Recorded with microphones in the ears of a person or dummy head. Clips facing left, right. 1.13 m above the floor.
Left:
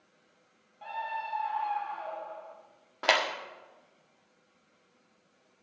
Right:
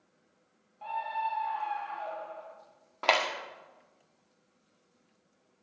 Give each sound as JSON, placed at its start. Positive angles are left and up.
{"t": 0.8, "sound": "a scream", "side_deg": 10, "distance_m": 1.8}
{"t": 3.0, "sound": "a clap", "side_deg": 10, "distance_m": 1.5}